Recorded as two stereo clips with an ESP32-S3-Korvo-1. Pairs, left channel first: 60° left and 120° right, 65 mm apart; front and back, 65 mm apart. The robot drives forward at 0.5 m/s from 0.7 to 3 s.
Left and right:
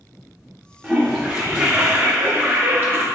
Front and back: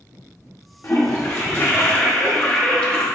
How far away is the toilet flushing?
About 2 m.